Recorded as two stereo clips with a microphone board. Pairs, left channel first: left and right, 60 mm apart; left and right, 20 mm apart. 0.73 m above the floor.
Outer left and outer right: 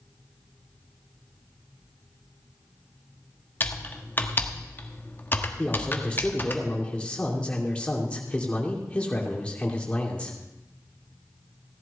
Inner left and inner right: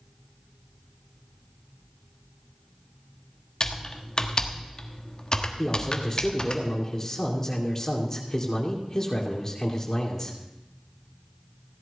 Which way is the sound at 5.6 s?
20° left (ahead or behind).